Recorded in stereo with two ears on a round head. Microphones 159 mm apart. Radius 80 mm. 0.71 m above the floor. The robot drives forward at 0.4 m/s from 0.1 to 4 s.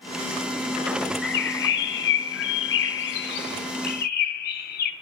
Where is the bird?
60° left (ahead or behind), 1.2 m.